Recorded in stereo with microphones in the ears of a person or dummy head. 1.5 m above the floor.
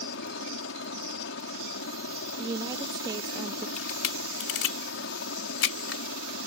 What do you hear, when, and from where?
0.0 s a helicopter: 60° left (ahead or behind)
2.4 s a woman speaking: 20° right (ahead or behind)
3.8 s a camera shutter: 80° left